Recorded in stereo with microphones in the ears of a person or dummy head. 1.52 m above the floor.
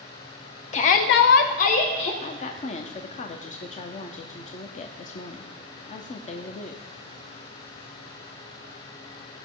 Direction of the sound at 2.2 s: 35° left (ahead or behind).